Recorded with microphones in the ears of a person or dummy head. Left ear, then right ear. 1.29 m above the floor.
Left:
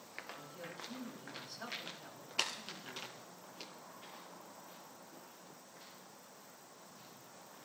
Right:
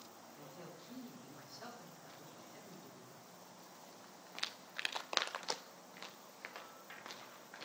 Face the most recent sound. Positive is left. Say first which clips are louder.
# left 5 dB
turn(degrees=75)  # may be behind; listen again after turning